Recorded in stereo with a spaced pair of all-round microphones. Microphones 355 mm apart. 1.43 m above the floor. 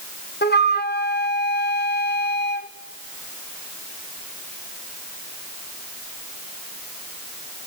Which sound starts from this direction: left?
A flute, at 0.4 s.